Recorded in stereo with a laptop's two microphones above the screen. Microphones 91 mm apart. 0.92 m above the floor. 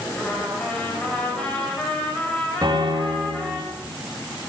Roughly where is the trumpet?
Centre.